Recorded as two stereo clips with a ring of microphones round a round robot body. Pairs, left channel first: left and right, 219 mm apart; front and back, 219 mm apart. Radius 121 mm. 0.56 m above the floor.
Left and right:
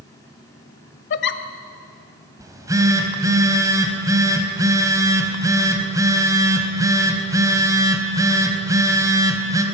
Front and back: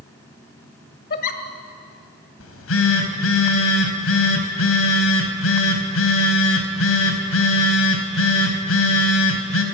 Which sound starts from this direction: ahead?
A phone buzzing, at 2.4 s.